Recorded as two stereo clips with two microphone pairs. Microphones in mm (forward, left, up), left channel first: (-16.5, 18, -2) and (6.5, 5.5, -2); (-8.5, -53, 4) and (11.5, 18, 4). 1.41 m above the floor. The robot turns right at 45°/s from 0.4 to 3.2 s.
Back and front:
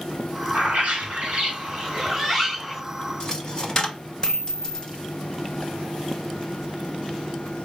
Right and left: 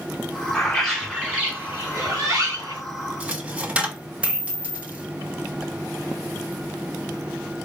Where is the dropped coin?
130° left, 0.7 m.